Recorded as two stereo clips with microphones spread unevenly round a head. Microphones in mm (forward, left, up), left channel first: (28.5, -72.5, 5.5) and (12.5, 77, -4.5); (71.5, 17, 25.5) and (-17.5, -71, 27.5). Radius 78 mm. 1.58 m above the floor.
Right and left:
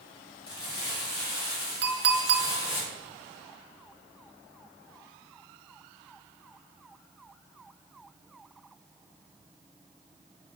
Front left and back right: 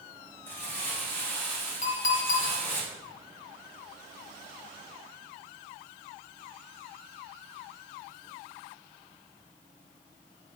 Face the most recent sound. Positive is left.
turn(degrees=90)